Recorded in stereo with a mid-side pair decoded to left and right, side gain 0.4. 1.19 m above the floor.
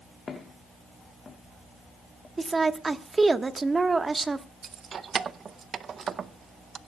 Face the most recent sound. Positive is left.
turn(degrees=-55)